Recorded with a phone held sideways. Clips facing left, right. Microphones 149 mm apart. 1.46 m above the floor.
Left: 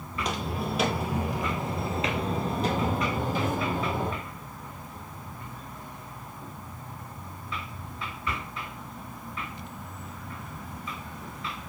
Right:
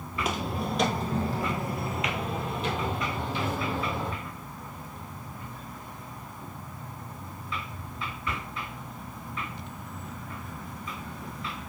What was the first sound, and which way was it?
Footsteps, 10° right (ahead or behind).